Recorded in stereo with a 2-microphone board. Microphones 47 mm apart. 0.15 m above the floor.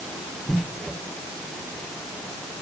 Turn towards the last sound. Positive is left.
No sound to turn to.